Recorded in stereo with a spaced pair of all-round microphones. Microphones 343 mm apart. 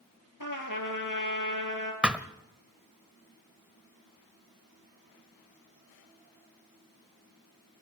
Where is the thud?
5° right (ahead or behind), 1.1 m.